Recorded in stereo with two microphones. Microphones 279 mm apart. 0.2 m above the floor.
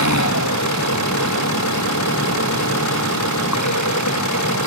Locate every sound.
0.0 s an engine running: 80° left